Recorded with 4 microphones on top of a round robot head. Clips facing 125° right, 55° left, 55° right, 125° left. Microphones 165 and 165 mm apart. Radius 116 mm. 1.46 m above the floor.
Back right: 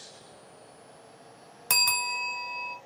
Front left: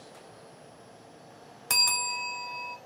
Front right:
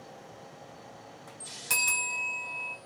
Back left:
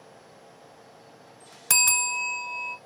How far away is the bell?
About 0.7 m.